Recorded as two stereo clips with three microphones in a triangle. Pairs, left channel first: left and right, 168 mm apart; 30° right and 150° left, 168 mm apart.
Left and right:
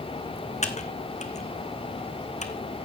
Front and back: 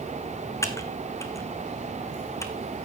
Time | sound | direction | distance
0.6 | typing on a keyboard | 40° left | 1.3 m